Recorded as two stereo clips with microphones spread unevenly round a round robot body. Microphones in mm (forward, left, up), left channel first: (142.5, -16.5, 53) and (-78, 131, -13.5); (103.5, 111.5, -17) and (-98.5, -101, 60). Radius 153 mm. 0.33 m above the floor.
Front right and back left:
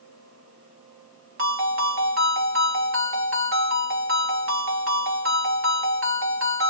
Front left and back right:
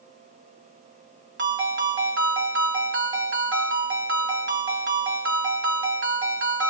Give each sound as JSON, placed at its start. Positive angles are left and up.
{"t": 1.4, "sound": "a ringtone", "azimuth_deg": 170, "distance_m": 1.7}